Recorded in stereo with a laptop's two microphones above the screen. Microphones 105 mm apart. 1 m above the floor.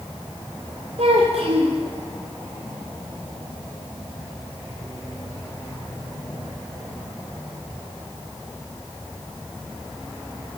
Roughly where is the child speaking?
Right.